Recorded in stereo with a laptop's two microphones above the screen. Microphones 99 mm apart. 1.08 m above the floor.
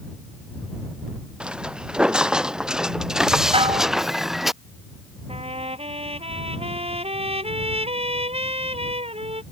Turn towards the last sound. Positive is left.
turn(degrees=-85)